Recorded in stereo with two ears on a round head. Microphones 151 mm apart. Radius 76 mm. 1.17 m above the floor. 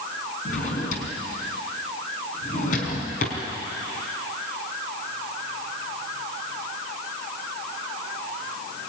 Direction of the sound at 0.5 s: 50° left (ahead or behind).